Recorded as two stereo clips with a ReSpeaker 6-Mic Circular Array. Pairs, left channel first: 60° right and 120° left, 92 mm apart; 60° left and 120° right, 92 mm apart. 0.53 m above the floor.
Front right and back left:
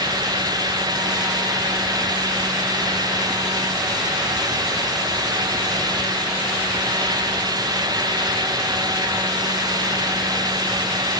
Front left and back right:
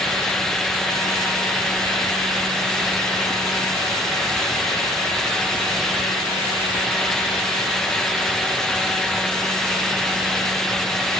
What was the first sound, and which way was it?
Only background noise.